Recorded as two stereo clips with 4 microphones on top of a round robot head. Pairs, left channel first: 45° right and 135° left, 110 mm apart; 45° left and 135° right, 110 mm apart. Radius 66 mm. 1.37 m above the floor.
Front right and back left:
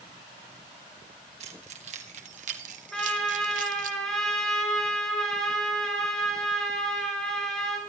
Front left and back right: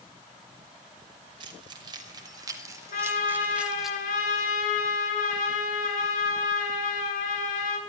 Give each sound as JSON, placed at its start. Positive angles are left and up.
{"t": 1.4, "sound": "keys jangling", "azimuth_deg": 170, "distance_m": 4.0}
{"t": 2.9, "sound": "a trumpet", "azimuth_deg": 40, "distance_m": 8.0}